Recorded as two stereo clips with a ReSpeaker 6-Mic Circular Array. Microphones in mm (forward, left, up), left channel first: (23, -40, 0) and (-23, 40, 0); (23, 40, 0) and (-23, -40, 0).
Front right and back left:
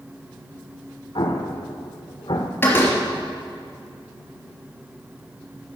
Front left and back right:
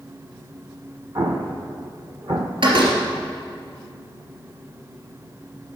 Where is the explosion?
75° right, 1.4 m.